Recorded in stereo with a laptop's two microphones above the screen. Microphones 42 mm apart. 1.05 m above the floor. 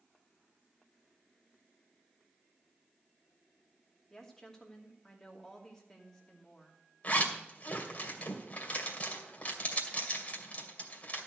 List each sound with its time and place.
4.1 s a woman speaking: 10° left (ahead or behind), 2.5 m
7.0 s a zipper: 35° left (ahead or behind), 2 m